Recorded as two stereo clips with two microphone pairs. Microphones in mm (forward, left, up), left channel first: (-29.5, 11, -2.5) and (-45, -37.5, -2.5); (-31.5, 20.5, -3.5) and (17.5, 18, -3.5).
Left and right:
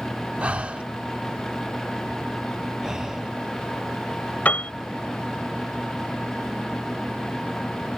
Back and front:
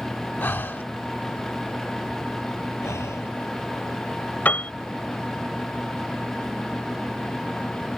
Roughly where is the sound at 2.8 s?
Behind.